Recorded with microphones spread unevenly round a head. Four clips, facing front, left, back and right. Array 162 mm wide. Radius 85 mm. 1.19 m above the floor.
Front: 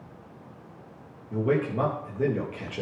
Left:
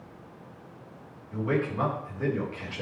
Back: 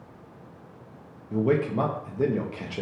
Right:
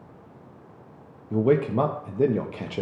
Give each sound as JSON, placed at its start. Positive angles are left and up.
{"t": 1.3, "sound": "a man speaking", "azimuth_deg": -100, "distance_m": 1.7}